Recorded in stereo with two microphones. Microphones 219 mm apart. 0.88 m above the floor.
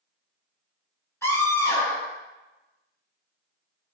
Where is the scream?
10° left (ahead or behind), 3.5 m.